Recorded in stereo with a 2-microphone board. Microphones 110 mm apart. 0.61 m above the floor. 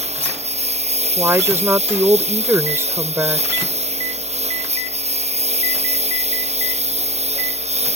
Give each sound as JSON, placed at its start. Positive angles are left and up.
{"t": 0.0, "sound": "a lawn mower", "side_deg": -80}
{"t": 1.2, "sound": "a woman speaking", "side_deg": -25}